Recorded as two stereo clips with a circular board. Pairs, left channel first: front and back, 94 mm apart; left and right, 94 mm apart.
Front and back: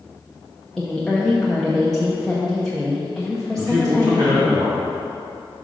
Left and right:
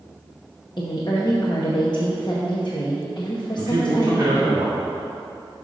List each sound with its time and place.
0.8 s a woman speaking: 85° left, 0.9 m
3.6 s a man speaking: 145° right, 2 m